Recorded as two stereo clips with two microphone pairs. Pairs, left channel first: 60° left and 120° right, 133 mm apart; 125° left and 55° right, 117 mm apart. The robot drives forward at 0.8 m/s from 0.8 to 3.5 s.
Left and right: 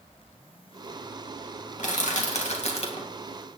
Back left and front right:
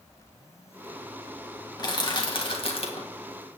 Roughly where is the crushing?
Left.